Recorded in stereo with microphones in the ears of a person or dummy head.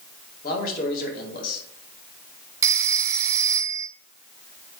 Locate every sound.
0.4 s a man speaking: 50° left (ahead or behind), 2 m
2.6 s a phone ringing: 20° right (ahead or behind), 0.6 m